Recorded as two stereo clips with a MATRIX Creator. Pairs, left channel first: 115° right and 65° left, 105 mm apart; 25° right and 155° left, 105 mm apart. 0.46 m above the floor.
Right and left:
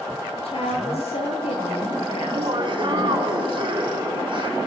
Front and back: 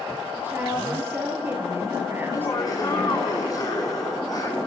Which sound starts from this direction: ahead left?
Laughter, at 2.2 s.